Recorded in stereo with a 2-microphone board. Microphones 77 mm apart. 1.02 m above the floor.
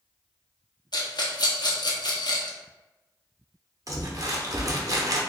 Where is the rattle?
60° left (ahead or behind), 0.8 m.